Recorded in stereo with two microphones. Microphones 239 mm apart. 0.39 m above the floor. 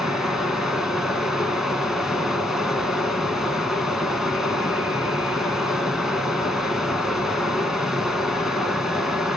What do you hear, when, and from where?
0.0 s running water: centre (ahead or behind), 1.2 m